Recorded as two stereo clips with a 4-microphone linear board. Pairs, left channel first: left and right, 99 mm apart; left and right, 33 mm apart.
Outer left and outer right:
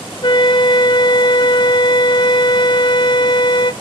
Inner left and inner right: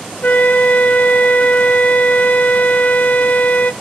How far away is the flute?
About 0.6 m.